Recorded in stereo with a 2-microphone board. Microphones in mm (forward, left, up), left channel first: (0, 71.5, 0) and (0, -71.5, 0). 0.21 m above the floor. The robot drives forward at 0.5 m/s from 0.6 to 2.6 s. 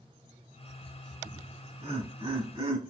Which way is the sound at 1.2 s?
30° right (ahead or behind).